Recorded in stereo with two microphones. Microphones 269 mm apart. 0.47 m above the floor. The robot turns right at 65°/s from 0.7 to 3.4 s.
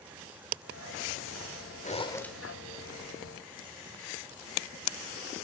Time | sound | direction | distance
1.8 | a zipper | 145° left | 0.8 m